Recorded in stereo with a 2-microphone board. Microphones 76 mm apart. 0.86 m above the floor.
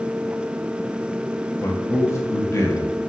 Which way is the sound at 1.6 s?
40° left (ahead or behind).